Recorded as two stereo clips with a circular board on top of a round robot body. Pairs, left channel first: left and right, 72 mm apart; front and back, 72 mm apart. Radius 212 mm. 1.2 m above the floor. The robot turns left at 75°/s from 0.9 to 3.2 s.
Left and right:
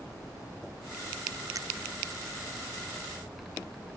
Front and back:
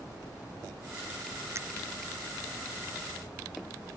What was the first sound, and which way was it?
A finger snap, 130° right.